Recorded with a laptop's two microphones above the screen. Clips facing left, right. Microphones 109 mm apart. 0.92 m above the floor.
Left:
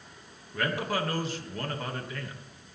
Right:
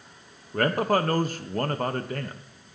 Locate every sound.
0.5 s a man speaking: 45° right (ahead or behind), 0.9 m